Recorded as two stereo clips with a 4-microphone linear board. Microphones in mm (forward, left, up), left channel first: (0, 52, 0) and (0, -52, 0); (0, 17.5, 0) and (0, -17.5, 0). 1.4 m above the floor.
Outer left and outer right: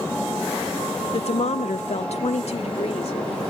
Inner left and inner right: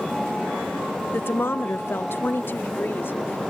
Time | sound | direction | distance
1.1 | a woman speaking | 60° left (ahead or behind) | ?